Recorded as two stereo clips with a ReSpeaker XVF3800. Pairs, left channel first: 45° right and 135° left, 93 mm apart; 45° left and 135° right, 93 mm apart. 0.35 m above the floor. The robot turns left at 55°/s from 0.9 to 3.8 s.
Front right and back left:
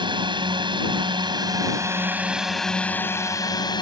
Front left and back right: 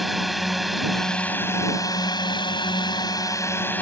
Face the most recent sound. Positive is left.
turn(degrees=-25)